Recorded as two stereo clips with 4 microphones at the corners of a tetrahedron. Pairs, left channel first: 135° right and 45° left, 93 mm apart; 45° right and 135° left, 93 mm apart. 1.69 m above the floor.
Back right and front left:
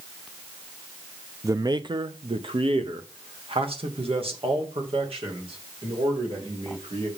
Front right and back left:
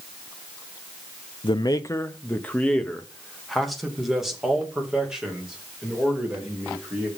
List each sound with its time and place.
1.4 s a man speaking: 10° right, 0.5 m; by 7.1 s 55° left, 3.5 m